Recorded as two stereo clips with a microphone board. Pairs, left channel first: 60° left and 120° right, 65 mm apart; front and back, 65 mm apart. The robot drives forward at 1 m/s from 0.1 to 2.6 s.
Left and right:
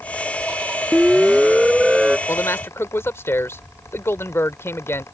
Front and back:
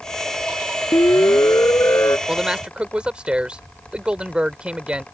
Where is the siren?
30° right; by 2.2 s 40° right.